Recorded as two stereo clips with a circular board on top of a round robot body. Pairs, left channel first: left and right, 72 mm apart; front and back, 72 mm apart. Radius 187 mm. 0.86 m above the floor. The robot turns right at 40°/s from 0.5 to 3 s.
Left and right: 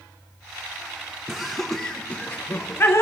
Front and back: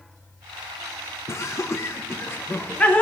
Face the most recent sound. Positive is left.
turn(degrees=65)